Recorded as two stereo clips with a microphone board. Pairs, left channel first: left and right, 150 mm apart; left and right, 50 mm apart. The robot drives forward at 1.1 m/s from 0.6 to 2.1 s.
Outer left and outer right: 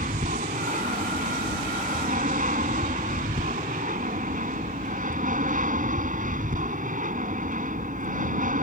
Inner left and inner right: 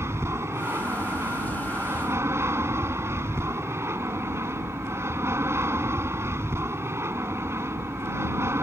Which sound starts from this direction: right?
An aircraft, at 0.0 s.